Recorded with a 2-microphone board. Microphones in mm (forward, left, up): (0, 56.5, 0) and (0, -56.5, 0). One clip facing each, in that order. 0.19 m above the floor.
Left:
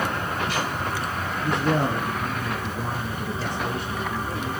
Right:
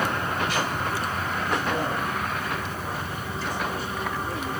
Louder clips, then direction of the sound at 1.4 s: Left 5 dB; 55° left (ahead or behind).